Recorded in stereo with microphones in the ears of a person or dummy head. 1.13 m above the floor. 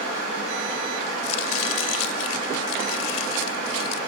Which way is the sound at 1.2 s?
85° left.